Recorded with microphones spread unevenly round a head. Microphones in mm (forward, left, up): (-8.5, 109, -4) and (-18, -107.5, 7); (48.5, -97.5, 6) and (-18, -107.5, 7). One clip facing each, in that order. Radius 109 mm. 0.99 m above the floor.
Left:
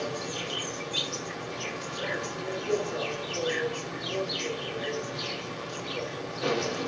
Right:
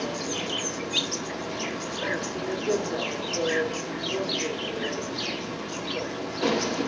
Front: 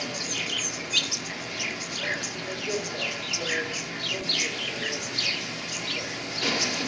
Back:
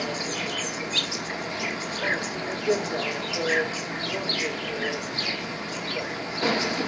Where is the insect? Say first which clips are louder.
Right 3 dB, back 4 dB; 120° right, 1.3 m.